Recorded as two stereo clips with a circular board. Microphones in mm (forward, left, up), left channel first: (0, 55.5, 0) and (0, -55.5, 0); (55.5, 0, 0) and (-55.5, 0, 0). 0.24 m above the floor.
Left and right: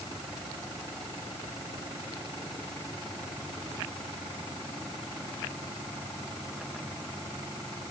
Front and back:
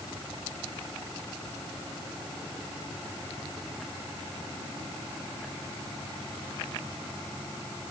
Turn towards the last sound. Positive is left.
No sound to turn to.